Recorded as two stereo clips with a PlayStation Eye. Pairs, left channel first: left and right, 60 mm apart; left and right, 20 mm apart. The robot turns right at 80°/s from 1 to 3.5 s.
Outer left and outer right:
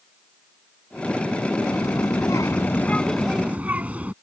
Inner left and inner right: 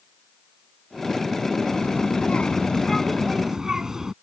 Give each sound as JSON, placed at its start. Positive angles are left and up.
{"t": 1.7, "sound": "a child speaking", "azimuth_deg": 55}